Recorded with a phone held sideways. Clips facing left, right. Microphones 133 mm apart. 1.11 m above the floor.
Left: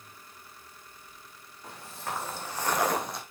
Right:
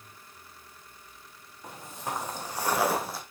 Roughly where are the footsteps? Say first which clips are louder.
Right 2 dB; right.